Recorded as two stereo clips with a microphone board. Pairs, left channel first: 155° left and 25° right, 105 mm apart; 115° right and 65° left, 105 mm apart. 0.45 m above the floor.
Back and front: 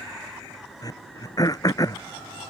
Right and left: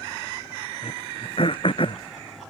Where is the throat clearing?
150° right.